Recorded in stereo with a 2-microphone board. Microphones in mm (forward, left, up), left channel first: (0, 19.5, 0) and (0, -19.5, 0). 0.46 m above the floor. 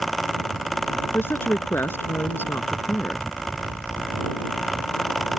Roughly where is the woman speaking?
Left.